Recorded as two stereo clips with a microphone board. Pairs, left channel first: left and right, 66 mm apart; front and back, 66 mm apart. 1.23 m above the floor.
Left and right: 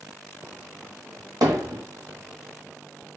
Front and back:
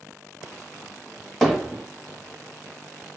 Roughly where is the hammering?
Right.